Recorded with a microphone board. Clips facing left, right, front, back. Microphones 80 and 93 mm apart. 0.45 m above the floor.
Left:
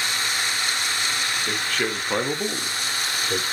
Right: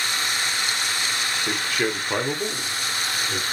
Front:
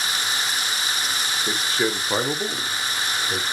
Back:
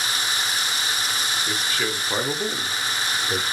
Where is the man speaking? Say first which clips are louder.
Right 3 dB, front 6 dB; 30° right, 0.9 m; by 3.4 s 125° left, 1.0 m.